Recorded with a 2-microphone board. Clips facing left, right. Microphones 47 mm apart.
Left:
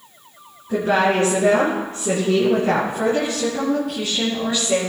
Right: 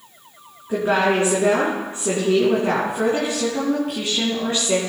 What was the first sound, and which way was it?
A woman speaking, 15° right (ahead or behind).